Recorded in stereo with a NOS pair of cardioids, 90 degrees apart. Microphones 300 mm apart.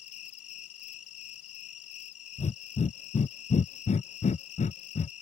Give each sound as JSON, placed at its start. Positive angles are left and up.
{"t": 0.0, "sound": "an insect", "azimuth_deg": 60}
{"t": 2.4, "sound": "breathing", "azimuth_deg": 25}